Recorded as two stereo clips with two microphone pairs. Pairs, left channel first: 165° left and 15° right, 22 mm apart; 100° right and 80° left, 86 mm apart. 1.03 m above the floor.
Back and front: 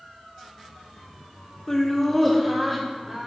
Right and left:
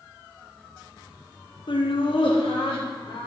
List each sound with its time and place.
1.7 s laughter: 125° right, 0.8 m; by 3.3 s 90° right, 2 m